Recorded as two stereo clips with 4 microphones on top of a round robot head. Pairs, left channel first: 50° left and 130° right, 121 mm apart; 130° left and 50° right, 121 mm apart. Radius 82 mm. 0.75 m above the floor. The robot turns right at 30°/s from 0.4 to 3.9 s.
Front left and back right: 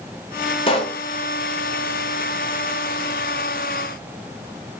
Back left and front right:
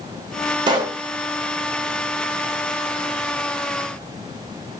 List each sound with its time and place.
0.7 s a pop: 5° left, 0.7 m; by 1.0 s 15° left, 0.7 m